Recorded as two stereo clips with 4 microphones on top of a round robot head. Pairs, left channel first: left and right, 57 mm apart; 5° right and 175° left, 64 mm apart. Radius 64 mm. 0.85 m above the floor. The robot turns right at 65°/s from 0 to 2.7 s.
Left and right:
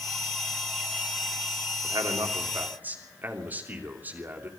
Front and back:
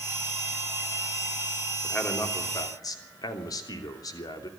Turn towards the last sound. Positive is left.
turn(degrees=-30)